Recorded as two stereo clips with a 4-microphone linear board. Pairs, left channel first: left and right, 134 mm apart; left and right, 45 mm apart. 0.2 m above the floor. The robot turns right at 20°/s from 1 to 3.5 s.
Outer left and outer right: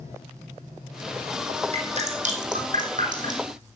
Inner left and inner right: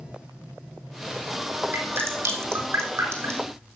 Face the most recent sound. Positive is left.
turn(degrees=-85)